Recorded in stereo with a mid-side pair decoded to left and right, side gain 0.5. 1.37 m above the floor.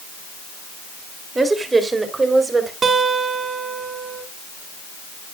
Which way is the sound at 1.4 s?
25° right.